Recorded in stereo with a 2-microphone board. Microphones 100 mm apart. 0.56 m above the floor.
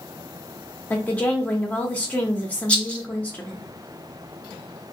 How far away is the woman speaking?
About 0.8 m.